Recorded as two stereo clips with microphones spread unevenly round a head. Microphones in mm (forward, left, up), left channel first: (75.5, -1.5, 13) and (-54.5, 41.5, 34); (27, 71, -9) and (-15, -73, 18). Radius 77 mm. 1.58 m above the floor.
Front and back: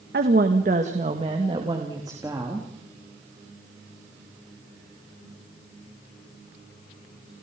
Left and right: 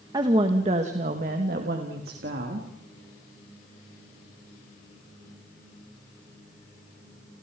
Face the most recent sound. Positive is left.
turn(degrees=-125)